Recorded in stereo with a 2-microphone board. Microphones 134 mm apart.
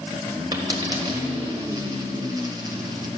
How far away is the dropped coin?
About 1.6 m.